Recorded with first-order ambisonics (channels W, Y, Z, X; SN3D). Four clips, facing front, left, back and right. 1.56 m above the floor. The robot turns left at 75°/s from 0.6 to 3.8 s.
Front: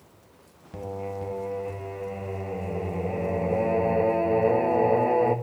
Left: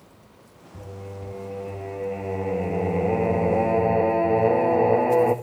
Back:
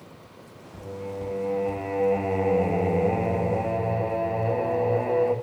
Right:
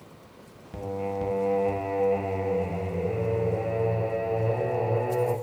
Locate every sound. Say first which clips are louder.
0.7 s singing: right 8 dB, front 1 dB; 55° right, 1.7 m; by 5.3 s 75° left, 1.7 m